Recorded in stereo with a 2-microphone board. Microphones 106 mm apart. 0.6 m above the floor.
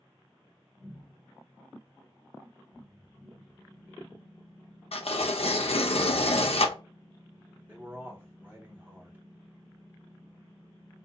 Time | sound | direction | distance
4.9 | tearing paper | 80° left | 0.5 m
7.7 | a man speaking | 20° right (ahead or behind) | 1.4 m